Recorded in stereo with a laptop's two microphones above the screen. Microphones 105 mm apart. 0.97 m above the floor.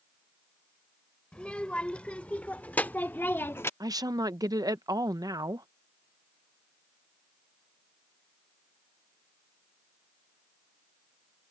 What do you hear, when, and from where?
1.3 s a child speaking: 10° left (ahead or behind); by 3.7 s 25° left (ahead or behind)
3.8 s a woman speaking: 35° right (ahead or behind)